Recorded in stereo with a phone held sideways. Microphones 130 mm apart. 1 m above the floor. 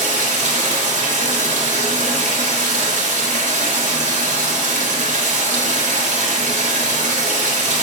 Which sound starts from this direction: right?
Running water, at 0.0 s.